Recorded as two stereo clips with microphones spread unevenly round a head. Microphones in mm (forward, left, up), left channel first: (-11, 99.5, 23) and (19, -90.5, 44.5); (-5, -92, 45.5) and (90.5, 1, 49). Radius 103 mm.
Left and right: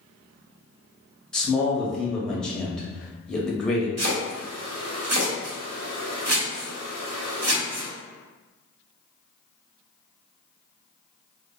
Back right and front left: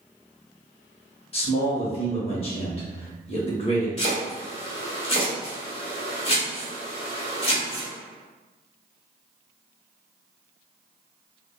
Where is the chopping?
90° right, 1.3 m.